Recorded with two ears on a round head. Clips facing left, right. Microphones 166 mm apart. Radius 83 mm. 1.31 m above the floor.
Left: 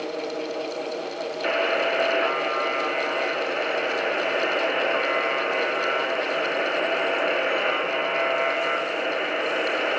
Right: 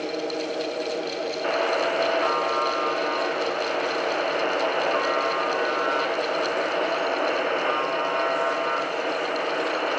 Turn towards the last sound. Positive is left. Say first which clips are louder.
# left 1 dB
turn(degrees=30)  # may be behind; listen again after turning